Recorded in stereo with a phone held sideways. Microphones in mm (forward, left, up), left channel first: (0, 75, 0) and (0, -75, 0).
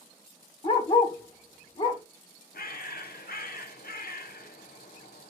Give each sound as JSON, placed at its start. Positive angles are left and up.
{"t": 0.6, "sound": "a dog barking", "side_deg": 35, "distance_m": 1.2}
{"t": 2.5, "sound": "a bird", "side_deg": 75, "distance_m": 1.0}